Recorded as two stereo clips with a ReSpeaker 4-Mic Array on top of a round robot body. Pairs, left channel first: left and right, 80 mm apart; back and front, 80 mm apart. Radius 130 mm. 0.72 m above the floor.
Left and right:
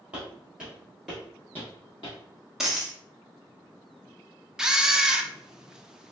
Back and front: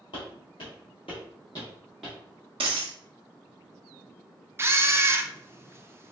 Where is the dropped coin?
5° right, 0.5 m.